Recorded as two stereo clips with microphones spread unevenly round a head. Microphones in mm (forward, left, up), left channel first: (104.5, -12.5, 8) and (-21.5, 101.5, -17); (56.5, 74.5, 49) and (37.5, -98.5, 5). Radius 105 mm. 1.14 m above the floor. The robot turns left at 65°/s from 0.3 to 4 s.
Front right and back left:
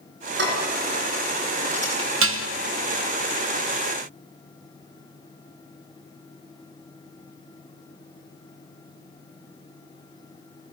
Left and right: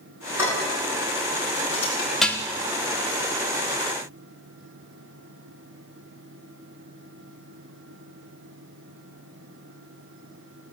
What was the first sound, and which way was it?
Dishes clattering, 175° right.